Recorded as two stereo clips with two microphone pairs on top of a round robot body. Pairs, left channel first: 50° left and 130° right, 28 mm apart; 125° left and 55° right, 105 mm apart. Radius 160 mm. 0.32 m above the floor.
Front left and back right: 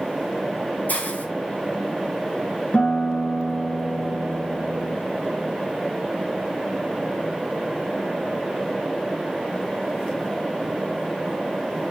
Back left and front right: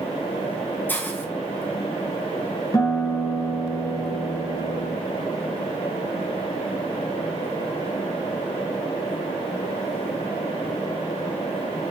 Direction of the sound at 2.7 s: 65° left.